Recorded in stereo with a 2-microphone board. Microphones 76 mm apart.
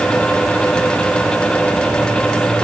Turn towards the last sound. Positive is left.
No sound to turn to.